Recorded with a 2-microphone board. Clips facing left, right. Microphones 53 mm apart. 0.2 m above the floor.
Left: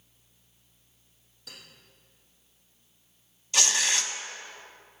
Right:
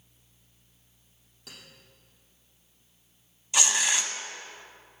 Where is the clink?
70° right (ahead or behind), 4 m.